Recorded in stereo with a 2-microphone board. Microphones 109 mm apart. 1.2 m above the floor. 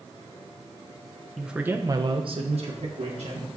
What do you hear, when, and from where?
1.4 s a man speaking: 5° right (ahead or behind), 1.0 m; by 3.5 s 70° right (ahead or behind), 1.6 m